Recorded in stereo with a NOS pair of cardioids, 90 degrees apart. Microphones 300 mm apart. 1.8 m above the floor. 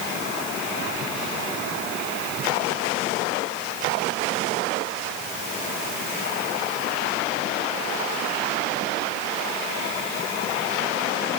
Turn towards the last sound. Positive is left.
No sound to turn to.